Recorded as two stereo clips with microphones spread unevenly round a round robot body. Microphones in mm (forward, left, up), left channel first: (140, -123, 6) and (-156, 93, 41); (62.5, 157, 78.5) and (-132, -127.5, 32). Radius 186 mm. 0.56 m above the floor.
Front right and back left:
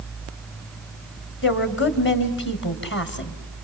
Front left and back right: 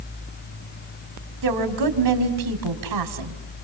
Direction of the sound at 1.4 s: 95° right.